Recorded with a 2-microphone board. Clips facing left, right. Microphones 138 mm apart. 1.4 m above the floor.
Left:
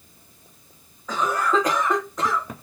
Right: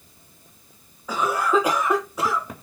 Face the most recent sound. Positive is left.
turn(degrees=-10)  # may be behind; listen again after turning